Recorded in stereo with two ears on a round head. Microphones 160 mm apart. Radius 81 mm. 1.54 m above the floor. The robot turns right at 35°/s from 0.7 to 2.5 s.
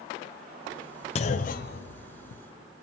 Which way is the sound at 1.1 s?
35° left (ahead or behind).